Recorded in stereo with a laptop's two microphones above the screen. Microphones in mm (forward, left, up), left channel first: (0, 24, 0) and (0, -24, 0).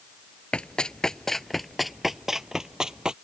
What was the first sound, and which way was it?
Running footsteps, 20° left (ahead or behind).